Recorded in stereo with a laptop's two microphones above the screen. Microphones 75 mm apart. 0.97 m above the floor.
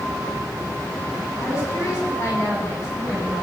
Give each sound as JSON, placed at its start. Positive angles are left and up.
{"t": 1.4, "sound": "a woman speaking", "side_deg": 35, "distance_m": 8.0}